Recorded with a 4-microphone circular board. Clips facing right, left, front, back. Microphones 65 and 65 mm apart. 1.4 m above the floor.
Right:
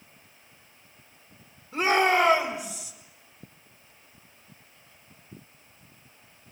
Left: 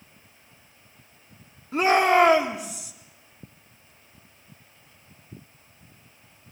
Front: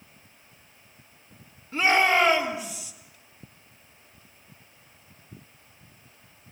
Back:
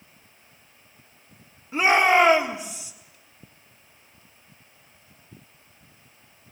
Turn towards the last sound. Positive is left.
turn(degrees=115)